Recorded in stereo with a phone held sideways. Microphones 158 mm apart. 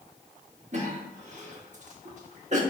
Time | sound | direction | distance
0.7 | a cough | 50° right (ahead or behind) | 1.8 m